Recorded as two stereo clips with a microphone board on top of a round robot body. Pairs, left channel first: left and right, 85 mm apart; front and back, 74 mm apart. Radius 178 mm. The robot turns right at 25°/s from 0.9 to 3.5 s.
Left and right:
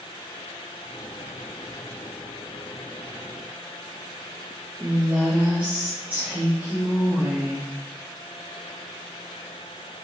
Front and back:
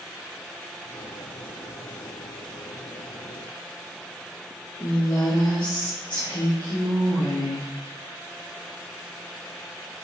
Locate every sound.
4.8 s a woman speaking: 20° right, 3 m